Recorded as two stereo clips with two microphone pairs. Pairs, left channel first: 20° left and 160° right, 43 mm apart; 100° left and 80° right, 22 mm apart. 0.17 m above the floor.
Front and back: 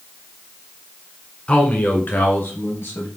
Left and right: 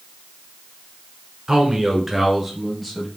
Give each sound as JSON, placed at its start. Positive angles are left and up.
{"t": 1.5, "sound": "a man speaking", "azimuth_deg": -30, "distance_m": 1.3}